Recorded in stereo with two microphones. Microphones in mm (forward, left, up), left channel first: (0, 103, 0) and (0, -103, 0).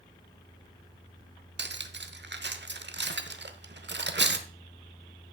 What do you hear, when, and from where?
1.6 s cutlery clinking: 60° right (ahead or behind), 0.7 m